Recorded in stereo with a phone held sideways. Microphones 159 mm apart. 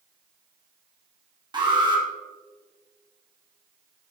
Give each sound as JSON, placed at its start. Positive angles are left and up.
{"t": 1.5, "sound": "an alarm", "side_deg": -30, "distance_m": 2.0}